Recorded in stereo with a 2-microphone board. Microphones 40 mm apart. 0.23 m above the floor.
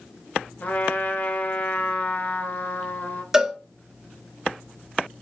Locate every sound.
0.6 s a trumpet: 45° left (ahead or behind), 0.6 m
3.3 s a cowbell: 10° right (ahead or behind), 0.6 m